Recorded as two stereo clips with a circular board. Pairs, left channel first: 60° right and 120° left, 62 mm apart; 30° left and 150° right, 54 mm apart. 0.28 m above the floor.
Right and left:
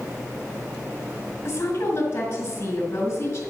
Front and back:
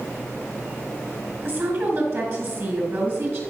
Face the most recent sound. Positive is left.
turn(degrees=-110)